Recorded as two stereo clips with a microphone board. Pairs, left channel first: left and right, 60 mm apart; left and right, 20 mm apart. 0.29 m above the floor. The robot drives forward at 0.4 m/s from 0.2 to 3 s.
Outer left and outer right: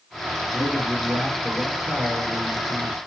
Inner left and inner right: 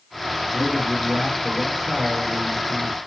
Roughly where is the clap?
No clap in this recording.